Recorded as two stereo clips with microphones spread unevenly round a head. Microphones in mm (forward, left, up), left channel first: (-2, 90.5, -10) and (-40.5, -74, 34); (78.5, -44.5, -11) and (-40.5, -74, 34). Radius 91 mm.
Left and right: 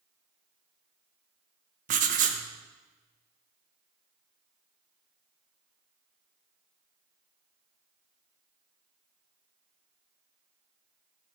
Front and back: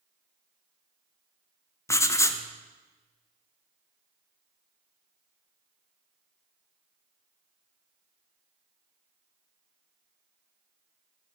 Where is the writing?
50° right, 1.0 m.